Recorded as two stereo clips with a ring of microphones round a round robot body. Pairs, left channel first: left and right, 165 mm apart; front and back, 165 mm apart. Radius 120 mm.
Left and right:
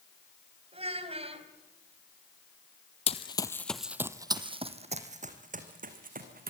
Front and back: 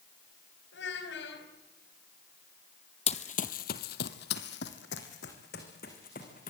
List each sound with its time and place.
0.7 s a child speaking: 35° right, 4.5 m
3.1 s running footsteps: 45° left, 1.5 m; by 6.5 s 60° right, 4 m